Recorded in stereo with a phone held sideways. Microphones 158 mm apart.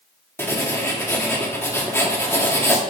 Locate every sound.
0.4 s writing: 15° left (ahead or behind), 1.4 m